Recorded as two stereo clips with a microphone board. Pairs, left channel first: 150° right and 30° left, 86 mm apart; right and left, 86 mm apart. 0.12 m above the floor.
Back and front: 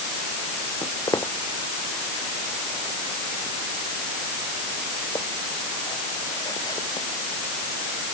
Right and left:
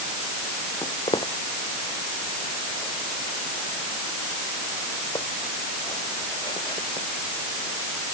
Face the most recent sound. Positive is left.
turn(degrees=-115)